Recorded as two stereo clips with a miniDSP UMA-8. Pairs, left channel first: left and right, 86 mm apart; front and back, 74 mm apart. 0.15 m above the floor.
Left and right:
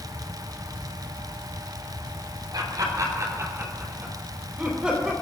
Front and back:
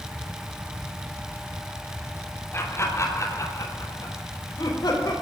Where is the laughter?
50° right, 4.5 m; by 5.1 s 5° right, 5 m.